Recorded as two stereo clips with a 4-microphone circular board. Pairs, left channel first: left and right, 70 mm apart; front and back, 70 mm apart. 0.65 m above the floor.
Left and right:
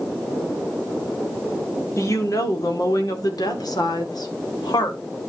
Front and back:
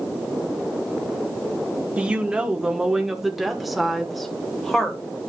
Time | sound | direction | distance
2.0 | a woman speaking | 115° left | 1.3 m